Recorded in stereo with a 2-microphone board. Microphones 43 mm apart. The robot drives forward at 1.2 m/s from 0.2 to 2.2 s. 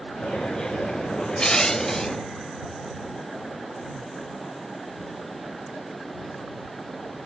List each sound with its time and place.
1.4 s crushing: 20° left (ahead or behind); by 2.2 s 10° left (ahead or behind)